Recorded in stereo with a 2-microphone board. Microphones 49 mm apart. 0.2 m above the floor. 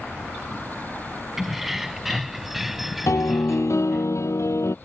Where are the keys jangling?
5° right (ahead or behind); by 4.1 s centre (ahead or behind).